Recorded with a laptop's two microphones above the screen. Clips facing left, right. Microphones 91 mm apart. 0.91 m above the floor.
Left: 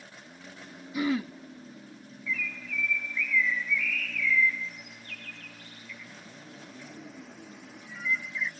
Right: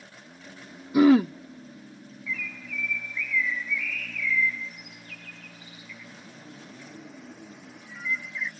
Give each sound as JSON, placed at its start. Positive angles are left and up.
{"t": 0.9, "sound": "throat clearing", "side_deg": -75}
{"t": 2.3, "sound": "a bird", "side_deg": -5}